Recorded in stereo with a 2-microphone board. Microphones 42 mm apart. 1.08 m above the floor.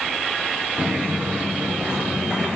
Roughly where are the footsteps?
Right.